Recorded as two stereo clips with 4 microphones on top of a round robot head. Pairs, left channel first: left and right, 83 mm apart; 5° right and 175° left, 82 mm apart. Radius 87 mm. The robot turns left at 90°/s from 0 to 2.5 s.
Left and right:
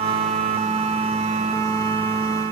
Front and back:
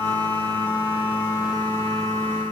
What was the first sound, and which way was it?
Only background noise.